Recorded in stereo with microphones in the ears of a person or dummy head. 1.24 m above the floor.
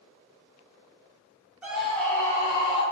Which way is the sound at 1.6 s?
5° right (ahead or behind).